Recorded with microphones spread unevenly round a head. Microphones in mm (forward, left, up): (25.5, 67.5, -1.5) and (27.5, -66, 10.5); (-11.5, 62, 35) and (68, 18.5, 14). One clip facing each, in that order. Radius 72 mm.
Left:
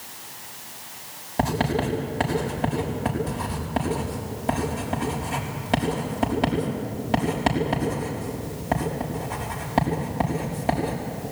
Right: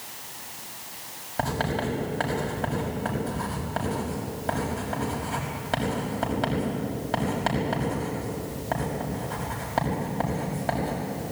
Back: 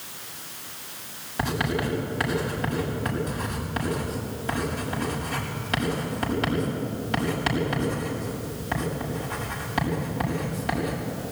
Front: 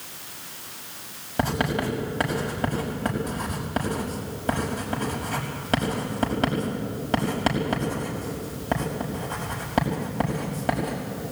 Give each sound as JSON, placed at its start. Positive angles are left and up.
{"t": 1.4, "sound": "writing", "azimuth_deg": 20, "distance_m": 6.0}